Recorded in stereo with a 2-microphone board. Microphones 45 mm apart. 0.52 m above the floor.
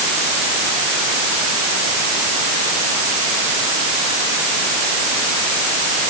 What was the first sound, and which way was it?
Only background noise.